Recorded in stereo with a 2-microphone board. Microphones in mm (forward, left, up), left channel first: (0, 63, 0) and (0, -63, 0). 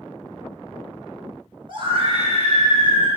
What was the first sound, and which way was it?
A scream, 40° right (ahead or behind).